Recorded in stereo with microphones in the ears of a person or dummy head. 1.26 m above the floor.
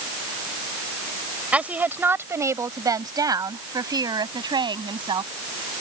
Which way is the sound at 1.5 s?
5° right (ahead or behind).